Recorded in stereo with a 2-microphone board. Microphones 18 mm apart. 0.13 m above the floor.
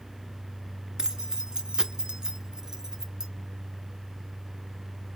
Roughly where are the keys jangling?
Right.